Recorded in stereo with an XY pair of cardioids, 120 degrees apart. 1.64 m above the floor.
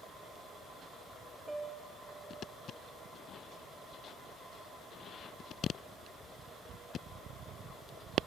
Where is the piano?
10° right, 2.5 m.